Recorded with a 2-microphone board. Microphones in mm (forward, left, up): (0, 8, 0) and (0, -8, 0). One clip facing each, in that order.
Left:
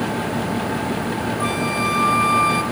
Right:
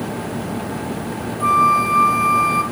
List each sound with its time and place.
1.4 s a flute: 40° left (ahead or behind), 1.5 m